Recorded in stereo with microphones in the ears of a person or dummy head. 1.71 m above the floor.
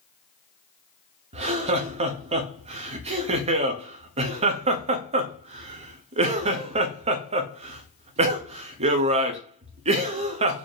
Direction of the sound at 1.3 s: 30° right (ahead or behind).